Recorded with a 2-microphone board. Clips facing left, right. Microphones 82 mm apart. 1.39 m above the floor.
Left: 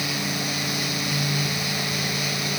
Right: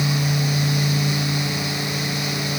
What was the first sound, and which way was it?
Only background noise.